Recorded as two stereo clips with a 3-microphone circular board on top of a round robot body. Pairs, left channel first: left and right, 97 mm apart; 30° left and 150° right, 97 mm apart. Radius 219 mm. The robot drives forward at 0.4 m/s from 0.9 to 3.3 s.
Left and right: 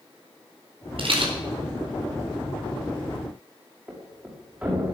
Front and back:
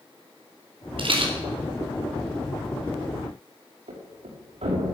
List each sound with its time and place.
1.0 s a rattle: 120° right, 4.5 m
3.9 s a thud: 165° right, 6 m